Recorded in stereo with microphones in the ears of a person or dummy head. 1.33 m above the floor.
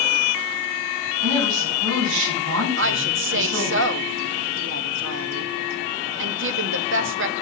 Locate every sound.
1.2 s a woman speaking: 80° right, 4.5 m
2.8 s a woman speaking: 60° right (ahead or behind), 0.8 m